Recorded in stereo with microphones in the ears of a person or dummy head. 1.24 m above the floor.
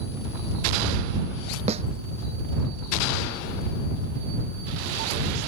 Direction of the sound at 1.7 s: 30° right (ahead or behind).